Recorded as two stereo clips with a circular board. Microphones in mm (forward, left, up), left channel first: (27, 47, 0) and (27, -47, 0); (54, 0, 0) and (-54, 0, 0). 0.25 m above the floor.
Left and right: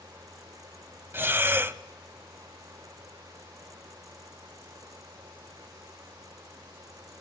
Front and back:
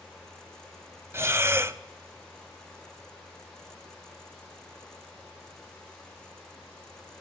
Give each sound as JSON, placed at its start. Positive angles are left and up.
{"t": 1.1, "sound": "breathing", "azimuth_deg": -135, "distance_m": 0.6}